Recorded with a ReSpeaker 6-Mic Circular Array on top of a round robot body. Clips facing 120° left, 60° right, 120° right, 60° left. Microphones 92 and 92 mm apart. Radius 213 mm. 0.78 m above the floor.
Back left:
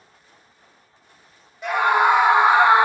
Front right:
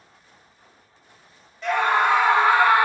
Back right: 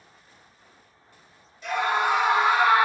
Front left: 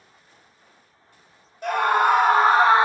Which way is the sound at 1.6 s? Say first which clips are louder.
Back left 2 dB, front left 5 dB; 45° left.